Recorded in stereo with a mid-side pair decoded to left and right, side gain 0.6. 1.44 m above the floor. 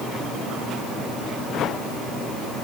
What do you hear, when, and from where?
Only background noise.